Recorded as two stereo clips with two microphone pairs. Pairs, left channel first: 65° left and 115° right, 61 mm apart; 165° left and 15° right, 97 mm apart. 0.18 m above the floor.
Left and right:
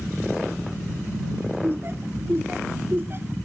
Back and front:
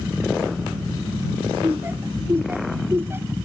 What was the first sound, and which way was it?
Laughter, 75° right.